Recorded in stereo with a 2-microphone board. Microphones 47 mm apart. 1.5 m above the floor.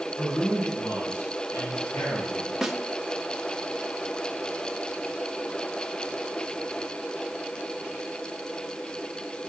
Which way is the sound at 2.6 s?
5° right (ahead or behind).